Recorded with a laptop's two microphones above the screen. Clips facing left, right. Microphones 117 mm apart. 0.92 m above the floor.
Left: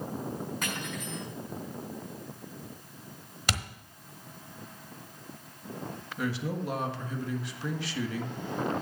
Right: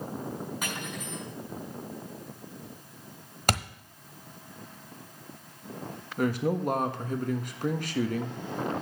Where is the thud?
45° right (ahead or behind), 1.0 m.